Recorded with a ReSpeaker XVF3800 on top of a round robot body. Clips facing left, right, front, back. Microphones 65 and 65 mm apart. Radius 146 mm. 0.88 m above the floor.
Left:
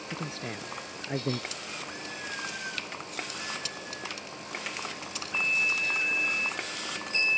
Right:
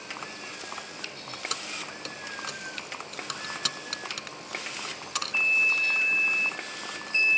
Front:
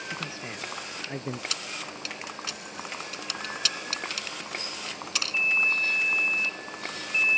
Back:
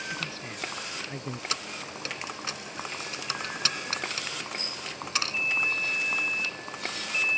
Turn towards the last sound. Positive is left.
turn(degrees=-120)